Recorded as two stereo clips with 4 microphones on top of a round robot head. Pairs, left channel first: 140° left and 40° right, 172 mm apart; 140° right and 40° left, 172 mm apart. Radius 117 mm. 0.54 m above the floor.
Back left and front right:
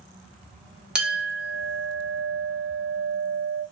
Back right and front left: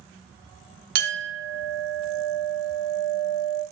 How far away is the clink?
About 0.7 m.